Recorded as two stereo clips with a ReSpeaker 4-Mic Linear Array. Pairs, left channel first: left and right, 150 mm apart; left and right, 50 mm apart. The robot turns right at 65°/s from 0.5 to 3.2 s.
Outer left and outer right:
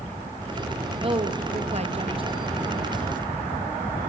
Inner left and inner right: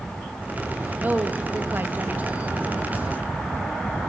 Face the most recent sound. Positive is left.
turn(degrees=15)